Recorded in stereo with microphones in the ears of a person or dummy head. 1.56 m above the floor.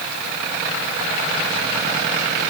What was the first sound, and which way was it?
Only background noise.